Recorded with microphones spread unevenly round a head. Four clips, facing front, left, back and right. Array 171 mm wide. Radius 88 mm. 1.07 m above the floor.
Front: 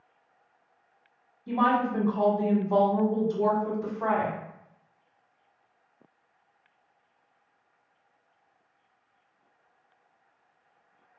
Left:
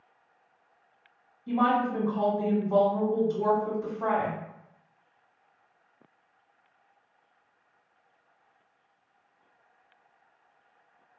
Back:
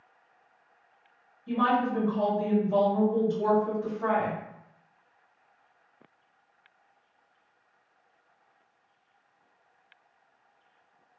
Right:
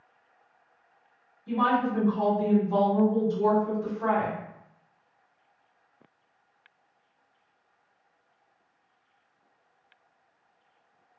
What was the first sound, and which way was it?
A woman speaking, 30° left.